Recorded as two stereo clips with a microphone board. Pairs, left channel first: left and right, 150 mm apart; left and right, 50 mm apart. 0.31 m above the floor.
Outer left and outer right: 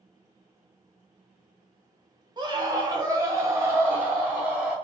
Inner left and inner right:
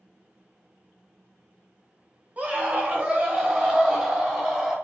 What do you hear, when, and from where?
2.4 s a scream: 30° right (ahead or behind), 1.3 m; by 4.8 s 10° right (ahead or behind), 1.7 m